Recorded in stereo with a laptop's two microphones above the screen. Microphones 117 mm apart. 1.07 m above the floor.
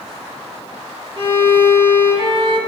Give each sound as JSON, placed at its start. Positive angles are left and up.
{"t": 1.2, "sound": "a violin", "side_deg": -45, "distance_m": 1.2}